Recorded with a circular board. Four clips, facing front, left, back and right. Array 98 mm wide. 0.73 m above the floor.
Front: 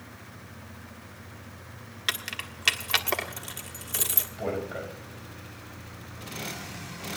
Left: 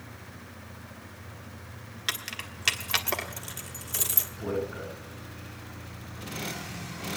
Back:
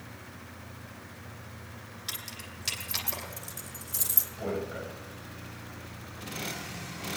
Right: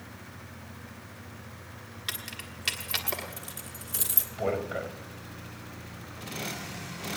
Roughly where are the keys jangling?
Ahead.